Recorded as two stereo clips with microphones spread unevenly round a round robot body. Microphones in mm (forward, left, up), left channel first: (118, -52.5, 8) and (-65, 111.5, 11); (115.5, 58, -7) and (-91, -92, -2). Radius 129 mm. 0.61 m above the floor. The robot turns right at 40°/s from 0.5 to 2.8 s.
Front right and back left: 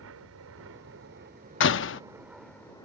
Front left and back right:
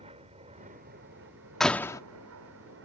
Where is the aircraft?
150° left; by 2.8 s 115° right.